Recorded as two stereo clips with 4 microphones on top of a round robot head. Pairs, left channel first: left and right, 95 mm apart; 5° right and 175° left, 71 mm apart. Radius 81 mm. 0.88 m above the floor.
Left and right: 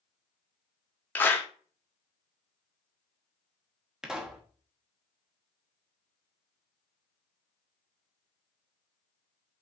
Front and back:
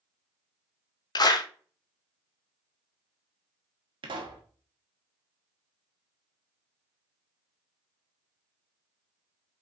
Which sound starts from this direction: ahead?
A clap, at 1.1 s.